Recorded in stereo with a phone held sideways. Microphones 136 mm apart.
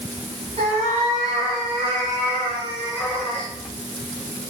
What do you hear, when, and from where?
0.6 s a cat meowing: 50° right (ahead or behind), 5.5 m; by 3.5 s 30° right (ahead or behind), 7.5 m